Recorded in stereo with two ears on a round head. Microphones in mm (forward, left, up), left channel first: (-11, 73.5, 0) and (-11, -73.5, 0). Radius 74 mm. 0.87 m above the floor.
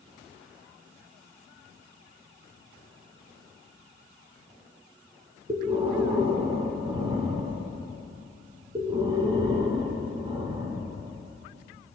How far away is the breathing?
About 3 m.